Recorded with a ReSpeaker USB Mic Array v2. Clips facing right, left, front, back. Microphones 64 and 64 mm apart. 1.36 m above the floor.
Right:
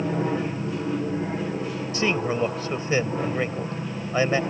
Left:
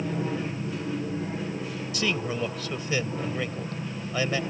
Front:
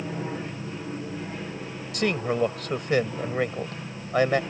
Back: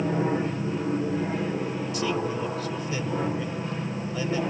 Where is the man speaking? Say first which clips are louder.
Right 5 dB, front 5 dB; 30° right.